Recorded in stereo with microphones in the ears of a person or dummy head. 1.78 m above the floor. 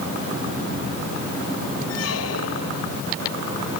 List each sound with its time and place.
1.9 s a squeak: 80° left